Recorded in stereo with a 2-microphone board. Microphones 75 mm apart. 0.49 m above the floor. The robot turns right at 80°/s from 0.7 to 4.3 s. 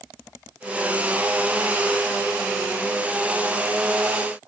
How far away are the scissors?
I don't hear scissors.